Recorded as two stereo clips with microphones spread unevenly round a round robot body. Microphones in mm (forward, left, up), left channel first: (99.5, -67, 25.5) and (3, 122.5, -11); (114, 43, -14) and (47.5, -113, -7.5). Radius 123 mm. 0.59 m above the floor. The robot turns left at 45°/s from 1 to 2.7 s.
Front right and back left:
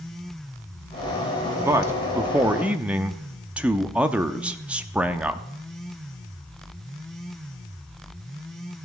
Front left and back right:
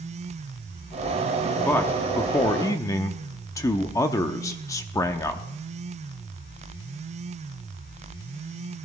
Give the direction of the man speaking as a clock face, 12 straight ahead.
8 o'clock.